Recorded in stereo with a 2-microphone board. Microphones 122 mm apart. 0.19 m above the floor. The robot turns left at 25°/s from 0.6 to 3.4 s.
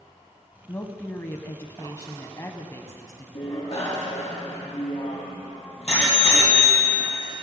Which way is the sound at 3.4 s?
50° left (ahead or behind).